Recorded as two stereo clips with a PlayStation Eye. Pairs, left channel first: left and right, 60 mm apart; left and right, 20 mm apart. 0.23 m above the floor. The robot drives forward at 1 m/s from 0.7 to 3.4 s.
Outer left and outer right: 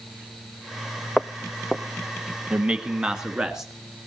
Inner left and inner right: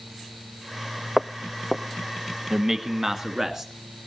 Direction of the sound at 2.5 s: 20° right (ahead or behind).